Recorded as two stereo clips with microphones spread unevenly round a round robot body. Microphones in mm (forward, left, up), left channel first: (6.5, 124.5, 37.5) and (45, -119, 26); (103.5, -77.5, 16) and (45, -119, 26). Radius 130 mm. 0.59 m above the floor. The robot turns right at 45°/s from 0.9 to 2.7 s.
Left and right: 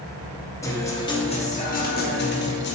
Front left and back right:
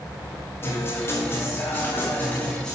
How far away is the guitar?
About 1.1 m.